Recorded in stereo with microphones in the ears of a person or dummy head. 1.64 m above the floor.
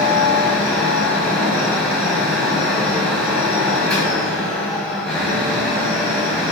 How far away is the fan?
About 0.8 m.